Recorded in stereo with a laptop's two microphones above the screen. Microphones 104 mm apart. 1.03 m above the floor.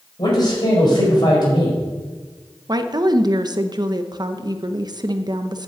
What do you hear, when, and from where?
0.2 s a man speaking: 45° left (ahead or behind), 5 m
2.7 s a woman speaking: 40° right (ahead or behind), 1.0 m